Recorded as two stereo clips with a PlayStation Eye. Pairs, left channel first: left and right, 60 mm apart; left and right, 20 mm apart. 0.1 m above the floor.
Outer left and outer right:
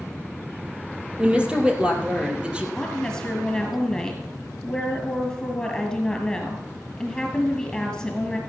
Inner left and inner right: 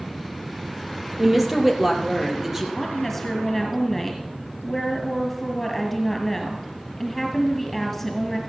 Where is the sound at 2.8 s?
5° left (ahead or behind), 1.9 m.